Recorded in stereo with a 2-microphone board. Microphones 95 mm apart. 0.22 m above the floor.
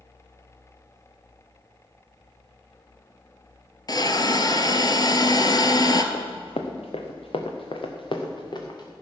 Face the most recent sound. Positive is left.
turn(degrees=45)  # may be behind; listen again after turning